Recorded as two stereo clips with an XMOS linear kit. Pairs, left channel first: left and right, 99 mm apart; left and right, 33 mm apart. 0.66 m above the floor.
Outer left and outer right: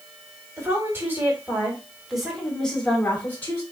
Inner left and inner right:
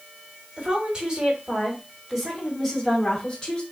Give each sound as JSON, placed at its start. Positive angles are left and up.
{"t": 0.6, "sound": "a woman speaking", "side_deg": -30, "distance_m": 2.0}